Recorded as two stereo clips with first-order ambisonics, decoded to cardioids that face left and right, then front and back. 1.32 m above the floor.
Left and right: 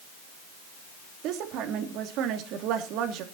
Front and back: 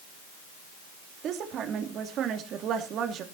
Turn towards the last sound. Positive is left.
turn(degrees=-130)